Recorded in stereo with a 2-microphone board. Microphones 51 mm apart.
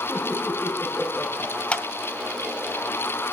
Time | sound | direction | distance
0.1 | laughter | 25° left (ahead or behind) | 8 m
1.7 | a clap | 25° left (ahead or behind) | 2.5 m